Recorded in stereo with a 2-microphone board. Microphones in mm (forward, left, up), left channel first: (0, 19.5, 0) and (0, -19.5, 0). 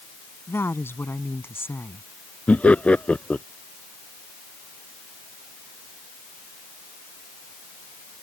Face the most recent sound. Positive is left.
turn(degrees=35)  # may be behind; listen again after turning